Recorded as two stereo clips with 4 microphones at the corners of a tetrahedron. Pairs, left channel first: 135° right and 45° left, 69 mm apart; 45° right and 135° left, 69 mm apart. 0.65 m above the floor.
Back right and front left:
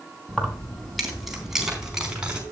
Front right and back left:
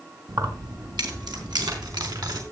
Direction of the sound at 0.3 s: 145° left.